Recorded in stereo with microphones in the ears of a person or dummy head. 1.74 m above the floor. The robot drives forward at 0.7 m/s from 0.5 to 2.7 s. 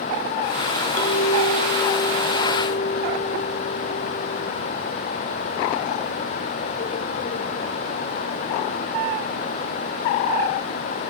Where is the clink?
45° left (ahead or behind), 4 m; by 4.5 s 55° left (ahead or behind), 3.5 m.